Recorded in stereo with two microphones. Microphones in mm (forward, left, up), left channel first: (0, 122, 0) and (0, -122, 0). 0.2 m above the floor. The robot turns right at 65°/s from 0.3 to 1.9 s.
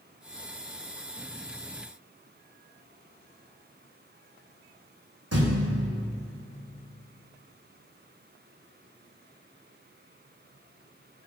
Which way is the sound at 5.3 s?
85° right.